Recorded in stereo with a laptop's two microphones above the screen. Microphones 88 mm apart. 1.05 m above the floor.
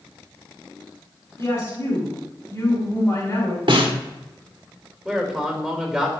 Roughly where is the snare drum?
Right.